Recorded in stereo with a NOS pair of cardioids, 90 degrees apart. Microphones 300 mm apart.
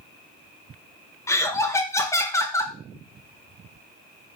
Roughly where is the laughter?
Ahead.